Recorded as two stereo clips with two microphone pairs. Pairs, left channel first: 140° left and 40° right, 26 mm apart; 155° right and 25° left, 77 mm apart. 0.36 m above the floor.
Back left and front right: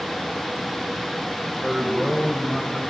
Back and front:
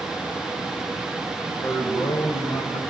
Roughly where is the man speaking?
Behind right.